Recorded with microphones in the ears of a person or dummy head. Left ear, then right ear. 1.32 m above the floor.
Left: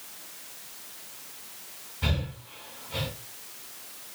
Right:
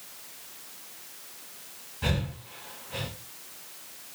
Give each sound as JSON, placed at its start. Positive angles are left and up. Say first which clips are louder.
{"t": 2.0, "sound": "breathing", "louder": "right 1 dB", "side_deg": -5, "distance_m": 1.6}